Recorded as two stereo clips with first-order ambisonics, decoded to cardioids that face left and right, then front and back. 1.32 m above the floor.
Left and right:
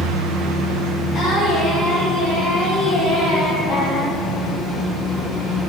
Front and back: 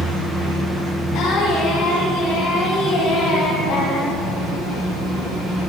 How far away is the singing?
About 5 m.